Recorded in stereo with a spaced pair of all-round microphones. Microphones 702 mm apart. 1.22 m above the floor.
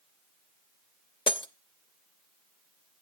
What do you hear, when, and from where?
1.3 s breaking glass: 10° left (ahead or behind), 0.6 m